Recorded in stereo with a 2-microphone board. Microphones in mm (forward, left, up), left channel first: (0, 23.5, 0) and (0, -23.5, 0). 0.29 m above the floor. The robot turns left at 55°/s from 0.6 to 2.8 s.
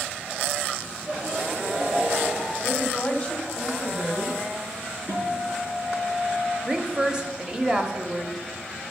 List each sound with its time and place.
1.1 s laughter: 5° left, 3.5 m; by 2.5 s 80° right, 3.5 m
2.6 s a woman speaking: 25° left (ahead or behind), 1.8 m; by 4.4 s 20° left (ahead or behind), 1.8 m
5.1 s a guitar: 75° right (ahead or behind), 5 m
6.7 s a woman speaking: 15° right (ahead or behind), 1.0 m